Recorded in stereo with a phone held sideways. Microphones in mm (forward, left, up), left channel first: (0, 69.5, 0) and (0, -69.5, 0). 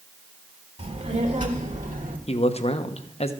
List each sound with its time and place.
0.8 s a child speaking: 55° right (ahead or behind), 3 m; by 2.2 s 75° right (ahead or behind), 2.5 m
2.3 s a man speaking: 50° left (ahead or behind), 1.0 m